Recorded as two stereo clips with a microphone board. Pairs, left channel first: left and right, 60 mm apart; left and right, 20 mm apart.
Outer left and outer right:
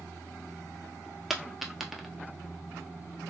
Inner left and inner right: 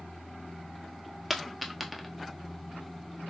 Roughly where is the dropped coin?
Centre.